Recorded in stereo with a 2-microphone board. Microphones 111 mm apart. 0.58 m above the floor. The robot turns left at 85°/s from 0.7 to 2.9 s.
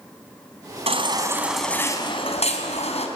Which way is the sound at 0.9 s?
120° right.